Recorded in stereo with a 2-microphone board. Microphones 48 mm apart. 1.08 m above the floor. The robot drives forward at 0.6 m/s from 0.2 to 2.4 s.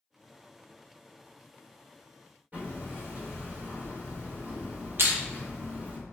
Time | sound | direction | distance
2.5 | hammering | 35° right (ahead or behind) | 1.4 m
5.0 | crushing | 50° right (ahead or behind) | 0.7 m